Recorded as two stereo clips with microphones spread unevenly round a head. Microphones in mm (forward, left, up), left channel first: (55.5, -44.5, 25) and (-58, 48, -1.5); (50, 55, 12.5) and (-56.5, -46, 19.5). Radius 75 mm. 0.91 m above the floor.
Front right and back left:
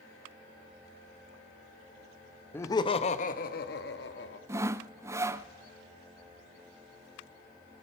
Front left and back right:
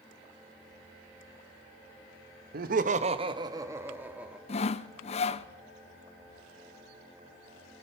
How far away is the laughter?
About 0.9 m.